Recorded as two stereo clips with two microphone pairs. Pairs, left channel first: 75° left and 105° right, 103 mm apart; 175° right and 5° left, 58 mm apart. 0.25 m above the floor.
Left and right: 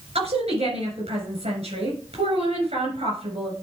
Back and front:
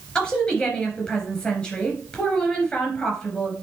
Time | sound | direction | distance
0.1 | a woman speaking | 105° right | 4 m